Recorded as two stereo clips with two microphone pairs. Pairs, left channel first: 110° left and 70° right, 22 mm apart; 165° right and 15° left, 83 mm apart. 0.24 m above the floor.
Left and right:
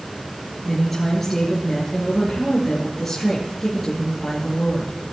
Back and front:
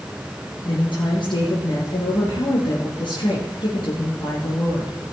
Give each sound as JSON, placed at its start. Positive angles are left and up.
{"t": 0.7, "sound": "a woman speaking", "azimuth_deg": -165, "distance_m": 3.5}